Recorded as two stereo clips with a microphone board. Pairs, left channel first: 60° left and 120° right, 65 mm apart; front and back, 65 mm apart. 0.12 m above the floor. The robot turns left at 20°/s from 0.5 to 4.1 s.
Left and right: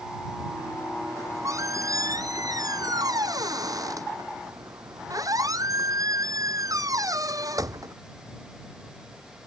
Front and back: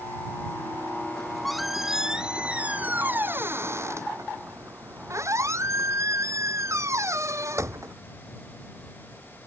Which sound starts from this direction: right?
A squeak, at 1.2 s.